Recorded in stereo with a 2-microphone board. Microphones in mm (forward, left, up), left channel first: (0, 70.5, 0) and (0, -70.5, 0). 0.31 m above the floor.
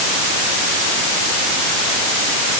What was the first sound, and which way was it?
Only background noise.